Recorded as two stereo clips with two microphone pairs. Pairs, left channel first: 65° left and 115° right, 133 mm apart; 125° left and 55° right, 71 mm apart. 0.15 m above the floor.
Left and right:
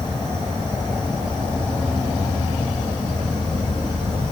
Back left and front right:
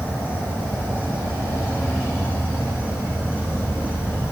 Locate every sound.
0.0 s an insect: 75° left, 2 m